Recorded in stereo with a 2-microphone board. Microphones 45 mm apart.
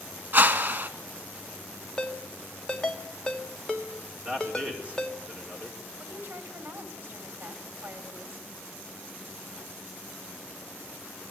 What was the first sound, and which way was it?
A whoosh, 50° right (ahead or behind).